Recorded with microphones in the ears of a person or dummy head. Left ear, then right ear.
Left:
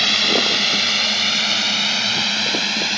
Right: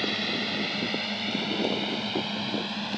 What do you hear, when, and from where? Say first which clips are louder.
0.0 s a drone: left 13 dB; 45° left (ahead or behind); by 3.0 s 75° left (ahead or behind)